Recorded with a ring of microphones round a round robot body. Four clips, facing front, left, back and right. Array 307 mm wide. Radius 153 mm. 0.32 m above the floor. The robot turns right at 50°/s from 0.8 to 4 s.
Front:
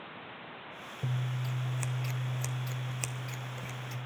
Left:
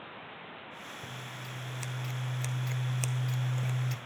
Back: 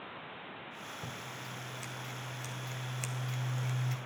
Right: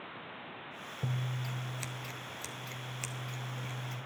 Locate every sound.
1.0 s scissors: 55° right, 1.4 m; by 4.0 s 95° left, 1.4 m